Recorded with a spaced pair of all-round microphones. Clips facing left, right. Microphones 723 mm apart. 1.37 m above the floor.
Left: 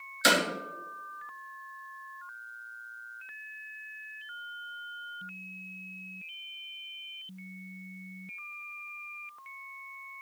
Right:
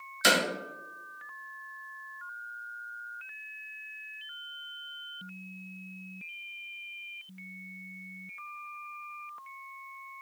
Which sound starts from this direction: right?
Hammering, at 0.2 s.